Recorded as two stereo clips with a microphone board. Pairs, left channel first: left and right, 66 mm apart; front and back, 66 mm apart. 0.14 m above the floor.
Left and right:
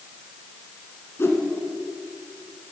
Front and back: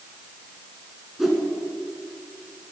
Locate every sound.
1.2 s a whoosh: 95° left, 2.0 m